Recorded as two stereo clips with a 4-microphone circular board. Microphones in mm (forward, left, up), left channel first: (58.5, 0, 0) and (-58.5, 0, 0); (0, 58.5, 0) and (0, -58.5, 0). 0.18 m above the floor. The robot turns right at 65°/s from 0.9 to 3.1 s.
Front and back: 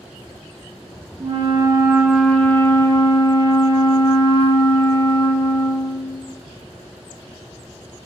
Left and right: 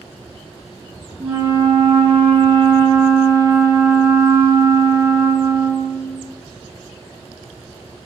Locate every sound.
1.2 s a flute: 155° right, 0.5 m; by 6.3 s 35° right, 0.5 m